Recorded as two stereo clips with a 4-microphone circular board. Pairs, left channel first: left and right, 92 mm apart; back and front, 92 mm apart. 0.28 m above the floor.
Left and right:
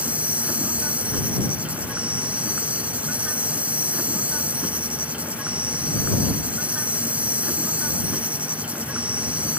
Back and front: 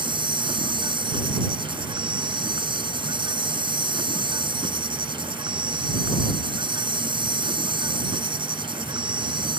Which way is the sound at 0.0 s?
15° right.